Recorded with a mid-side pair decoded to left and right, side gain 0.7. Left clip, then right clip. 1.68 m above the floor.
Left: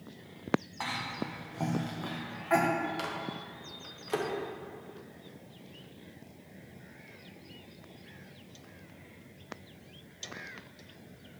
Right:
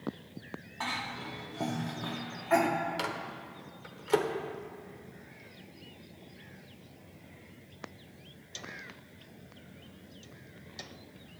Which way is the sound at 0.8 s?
10° left.